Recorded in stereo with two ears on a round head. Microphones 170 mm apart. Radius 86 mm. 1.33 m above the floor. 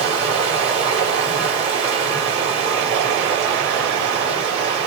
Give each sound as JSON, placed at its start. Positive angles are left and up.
{"t": 0.0, "sound": "running water", "side_deg": -35, "distance_m": 4.5}